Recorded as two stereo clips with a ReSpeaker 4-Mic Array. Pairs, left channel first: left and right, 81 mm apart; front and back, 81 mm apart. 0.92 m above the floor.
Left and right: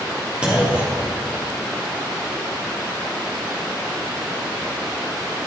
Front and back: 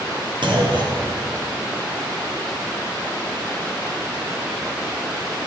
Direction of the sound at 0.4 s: 165° right.